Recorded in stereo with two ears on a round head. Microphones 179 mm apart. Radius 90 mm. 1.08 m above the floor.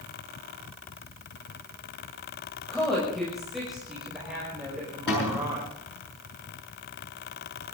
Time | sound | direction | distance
2.7 | a woman speaking | 5° left (ahead or behind) | 6.5 m
5.1 | a cupboard door | 60° left (ahead or behind) | 7.5 m